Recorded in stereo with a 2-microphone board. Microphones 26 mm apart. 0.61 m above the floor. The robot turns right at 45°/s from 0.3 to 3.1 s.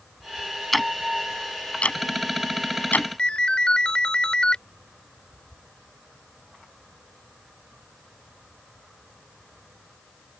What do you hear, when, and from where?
0.7 s ticking: centre (ahead or behind); by 3.1 s 70° left (ahead or behind)
3.2 s a ringtone: 35° left (ahead or behind)